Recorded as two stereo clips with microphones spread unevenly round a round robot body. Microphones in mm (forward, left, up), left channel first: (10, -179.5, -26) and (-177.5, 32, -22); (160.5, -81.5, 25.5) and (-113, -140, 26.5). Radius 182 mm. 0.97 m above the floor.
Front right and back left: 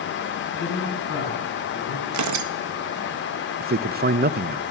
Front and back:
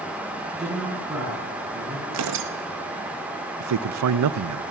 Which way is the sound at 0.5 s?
80° right.